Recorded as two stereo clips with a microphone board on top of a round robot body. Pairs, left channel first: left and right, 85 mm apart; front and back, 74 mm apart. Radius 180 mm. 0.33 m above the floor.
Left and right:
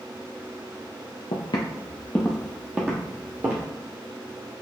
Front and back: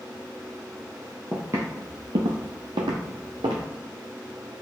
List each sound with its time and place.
1.3 s footsteps: 110° left, 0.6 m; by 3.6 s 150° right, 1.2 m